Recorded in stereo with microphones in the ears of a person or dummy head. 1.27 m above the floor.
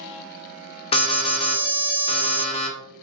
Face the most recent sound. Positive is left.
turn(degrees=30)  # may be behind; listen again after turning